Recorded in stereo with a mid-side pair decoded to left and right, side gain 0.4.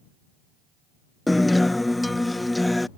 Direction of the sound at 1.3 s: 15° left.